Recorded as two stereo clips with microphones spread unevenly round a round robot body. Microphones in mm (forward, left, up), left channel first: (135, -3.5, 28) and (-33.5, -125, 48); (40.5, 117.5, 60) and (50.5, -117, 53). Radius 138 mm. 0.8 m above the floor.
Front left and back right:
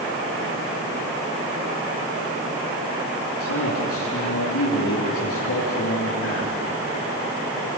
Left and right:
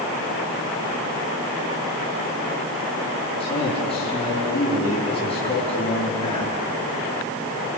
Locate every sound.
3.4 s a man speaking: 25° left, 8 m